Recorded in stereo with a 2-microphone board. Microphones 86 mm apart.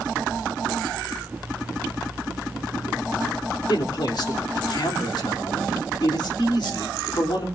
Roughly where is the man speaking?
Left.